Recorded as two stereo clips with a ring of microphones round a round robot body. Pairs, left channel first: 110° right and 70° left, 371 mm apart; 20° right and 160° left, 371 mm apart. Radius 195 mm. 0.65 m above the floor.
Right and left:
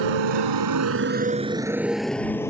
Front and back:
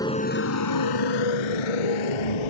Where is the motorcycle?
60° left; by 2.5 s 30° right.